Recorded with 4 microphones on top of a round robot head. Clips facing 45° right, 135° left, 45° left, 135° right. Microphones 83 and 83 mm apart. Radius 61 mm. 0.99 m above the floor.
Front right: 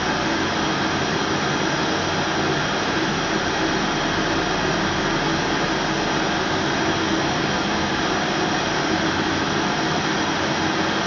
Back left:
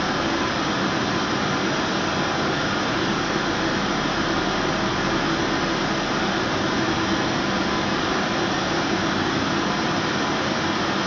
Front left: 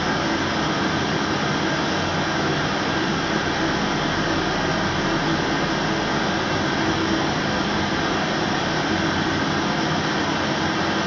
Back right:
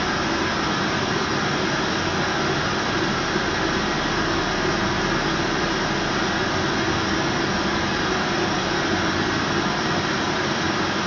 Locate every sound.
0.0 s running water: straight ahead, 0.9 m